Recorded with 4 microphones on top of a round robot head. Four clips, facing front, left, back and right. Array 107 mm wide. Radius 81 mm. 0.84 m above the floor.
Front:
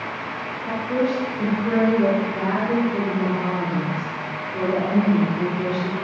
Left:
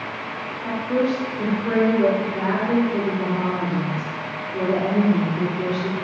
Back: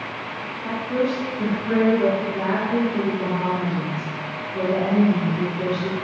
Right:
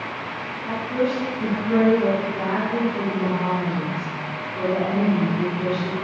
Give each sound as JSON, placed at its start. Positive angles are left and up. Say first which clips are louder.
{"t": 0.6, "sound": "a woman speaking", "louder": "left 2 dB, even", "azimuth_deg": 70, "distance_m": 2.5}